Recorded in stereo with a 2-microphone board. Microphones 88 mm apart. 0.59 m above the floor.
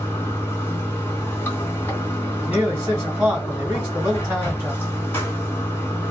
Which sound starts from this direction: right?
A man speaking, at 2.4 s.